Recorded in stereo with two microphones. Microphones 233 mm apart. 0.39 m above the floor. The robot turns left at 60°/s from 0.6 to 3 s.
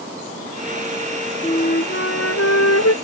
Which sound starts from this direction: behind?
A flute, at 1.4 s.